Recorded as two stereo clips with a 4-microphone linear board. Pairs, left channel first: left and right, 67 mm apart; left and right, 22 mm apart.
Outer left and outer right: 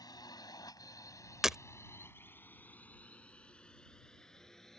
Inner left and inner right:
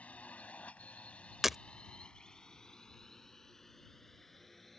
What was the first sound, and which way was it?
A drone, 85° left.